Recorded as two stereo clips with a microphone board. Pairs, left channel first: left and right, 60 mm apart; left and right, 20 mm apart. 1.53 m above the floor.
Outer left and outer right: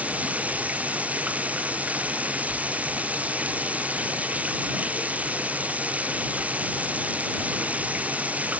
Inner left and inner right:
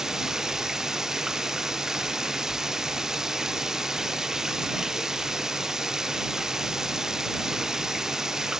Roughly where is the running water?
Right.